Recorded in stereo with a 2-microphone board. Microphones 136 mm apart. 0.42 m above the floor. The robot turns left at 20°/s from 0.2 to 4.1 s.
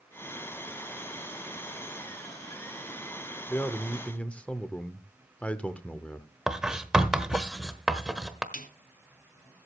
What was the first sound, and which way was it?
A man speaking, 15° left (ahead or behind).